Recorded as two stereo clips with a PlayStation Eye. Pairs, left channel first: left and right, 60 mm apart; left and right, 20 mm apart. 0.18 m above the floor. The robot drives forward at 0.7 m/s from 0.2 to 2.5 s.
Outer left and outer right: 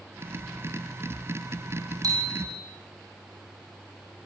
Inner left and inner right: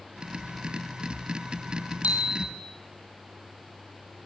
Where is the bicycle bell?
80° right, 5 m; by 2.6 s 75° right (ahead or behind), 5 m.